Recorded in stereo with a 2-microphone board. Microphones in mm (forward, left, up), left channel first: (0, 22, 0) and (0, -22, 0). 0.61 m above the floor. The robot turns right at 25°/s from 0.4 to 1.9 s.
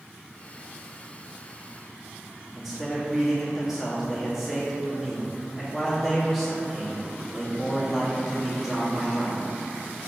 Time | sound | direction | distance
2.5 | a man speaking | 5° right (ahead or behind) | 1.1 m